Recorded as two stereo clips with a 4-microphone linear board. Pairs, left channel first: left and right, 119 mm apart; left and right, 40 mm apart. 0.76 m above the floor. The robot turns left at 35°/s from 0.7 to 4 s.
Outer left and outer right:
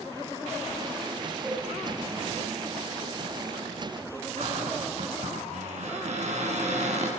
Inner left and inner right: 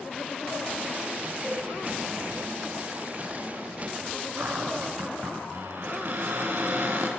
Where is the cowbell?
Centre (ahead or behind), 10 m; by 1.6 s 10° left (ahead or behind), 10 m.